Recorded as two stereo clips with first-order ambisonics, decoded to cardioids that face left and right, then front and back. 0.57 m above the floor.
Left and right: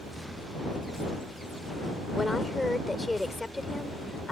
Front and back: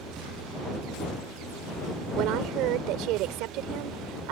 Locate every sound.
2.2 s a woman speaking: 175° left